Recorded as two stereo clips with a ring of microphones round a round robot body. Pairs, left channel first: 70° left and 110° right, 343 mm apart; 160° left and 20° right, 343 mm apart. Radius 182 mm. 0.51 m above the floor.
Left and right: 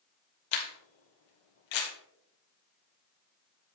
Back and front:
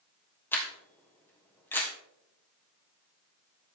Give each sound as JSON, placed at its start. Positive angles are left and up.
{"t": 0.5, "sound": "a camera shutter", "azimuth_deg": 75, "distance_m": 2.5}